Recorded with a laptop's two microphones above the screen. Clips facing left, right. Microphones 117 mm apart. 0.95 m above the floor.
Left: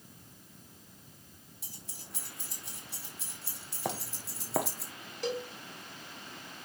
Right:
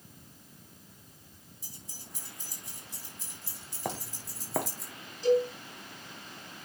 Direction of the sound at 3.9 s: 5° left (ahead or behind).